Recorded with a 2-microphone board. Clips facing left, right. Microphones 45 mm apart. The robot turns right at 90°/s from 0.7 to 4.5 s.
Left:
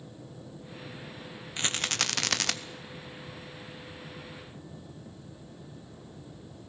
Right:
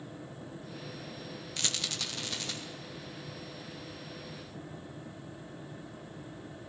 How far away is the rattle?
About 0.7 m.